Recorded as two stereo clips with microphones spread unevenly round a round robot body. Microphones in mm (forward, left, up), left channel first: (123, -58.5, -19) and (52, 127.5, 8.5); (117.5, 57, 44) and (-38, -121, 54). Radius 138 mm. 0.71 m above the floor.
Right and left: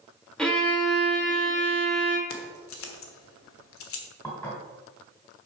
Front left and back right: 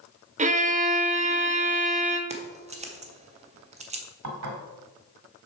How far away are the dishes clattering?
About 1.6 m.